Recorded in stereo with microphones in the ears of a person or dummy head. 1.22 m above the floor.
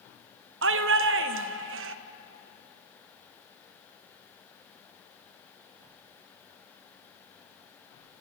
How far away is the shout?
About 1.0 m.